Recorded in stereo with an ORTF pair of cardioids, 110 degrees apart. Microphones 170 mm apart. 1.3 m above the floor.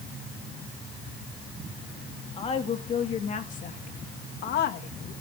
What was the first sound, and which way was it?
A woman speaking, 35° left.